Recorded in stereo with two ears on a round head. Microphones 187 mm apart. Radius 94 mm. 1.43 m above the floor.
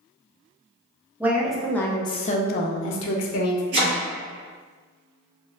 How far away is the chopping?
About 1.4 m.